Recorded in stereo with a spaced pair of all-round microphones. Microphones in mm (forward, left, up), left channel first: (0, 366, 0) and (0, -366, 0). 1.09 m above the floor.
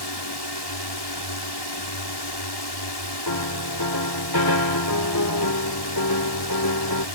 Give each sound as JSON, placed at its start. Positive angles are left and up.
{"t": 0.0, "sound": "a drone", "side_deg": 35}
{"t": 3.3, "sound": "a piano", "side_deg": 30}